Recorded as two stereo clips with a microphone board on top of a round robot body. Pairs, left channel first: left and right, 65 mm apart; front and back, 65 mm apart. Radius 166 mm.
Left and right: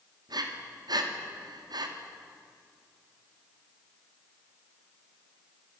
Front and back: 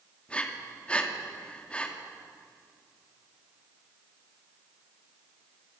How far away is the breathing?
About 2.5 m.